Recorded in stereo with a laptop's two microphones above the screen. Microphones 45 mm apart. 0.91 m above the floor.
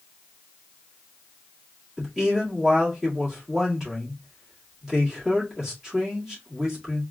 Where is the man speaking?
10° right (ahead or behind), 1.9 m.